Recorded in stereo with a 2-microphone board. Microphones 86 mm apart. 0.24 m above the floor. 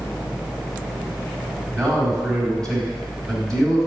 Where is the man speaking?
5° left (ahead or behind), 1.8 m.